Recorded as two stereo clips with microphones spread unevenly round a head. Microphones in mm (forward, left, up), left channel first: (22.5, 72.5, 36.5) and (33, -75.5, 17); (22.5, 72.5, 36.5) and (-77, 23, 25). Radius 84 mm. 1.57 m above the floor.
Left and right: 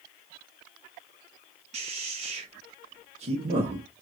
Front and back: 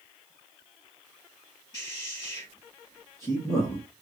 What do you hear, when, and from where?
1.7 s a man speaking: 40° right, 1.3 m